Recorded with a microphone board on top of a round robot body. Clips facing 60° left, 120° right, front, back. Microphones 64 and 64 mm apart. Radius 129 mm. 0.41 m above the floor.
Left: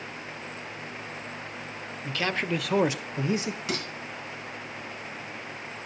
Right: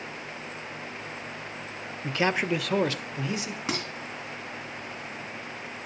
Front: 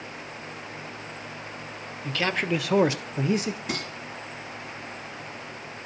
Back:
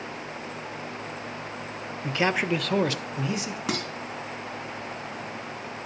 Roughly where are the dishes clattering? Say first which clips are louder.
Right 2 dB, back 2 dB; behind.